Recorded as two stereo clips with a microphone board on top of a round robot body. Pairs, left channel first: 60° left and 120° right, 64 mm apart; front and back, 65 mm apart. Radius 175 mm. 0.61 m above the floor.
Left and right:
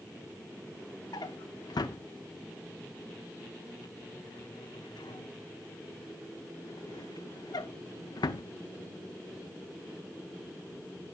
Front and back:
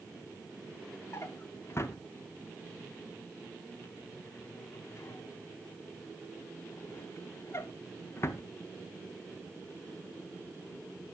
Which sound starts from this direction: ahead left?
A drawer, at 1.1 s.